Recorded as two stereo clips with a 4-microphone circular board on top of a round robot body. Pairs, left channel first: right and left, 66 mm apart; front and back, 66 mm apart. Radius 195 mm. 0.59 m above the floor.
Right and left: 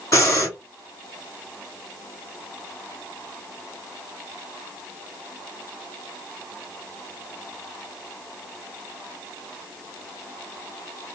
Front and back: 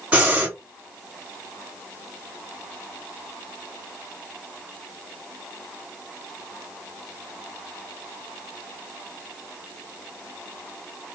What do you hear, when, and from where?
0.1 s breathing: 115° right, 1.9 m